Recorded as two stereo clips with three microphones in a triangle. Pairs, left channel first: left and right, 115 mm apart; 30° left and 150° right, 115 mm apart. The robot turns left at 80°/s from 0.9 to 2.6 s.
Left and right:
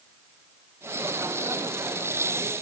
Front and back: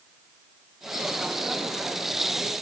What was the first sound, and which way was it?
Only background noise.